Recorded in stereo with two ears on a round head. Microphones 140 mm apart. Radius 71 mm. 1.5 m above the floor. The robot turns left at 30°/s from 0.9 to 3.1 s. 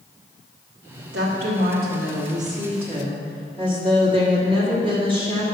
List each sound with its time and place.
1.1 s a woman speaking: 90° right, 1.5 m; by 5.4 s 150° right, 1.5 m